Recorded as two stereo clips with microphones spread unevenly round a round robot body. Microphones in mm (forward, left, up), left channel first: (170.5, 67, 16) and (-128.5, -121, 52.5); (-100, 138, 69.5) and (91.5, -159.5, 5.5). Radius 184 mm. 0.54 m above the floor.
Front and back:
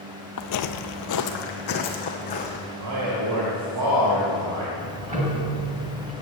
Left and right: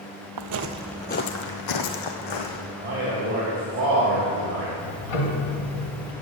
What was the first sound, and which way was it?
Footsteps, 20° right.